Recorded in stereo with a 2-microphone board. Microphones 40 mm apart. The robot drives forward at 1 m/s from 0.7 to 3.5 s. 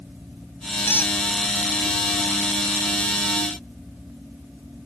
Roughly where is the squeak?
Left.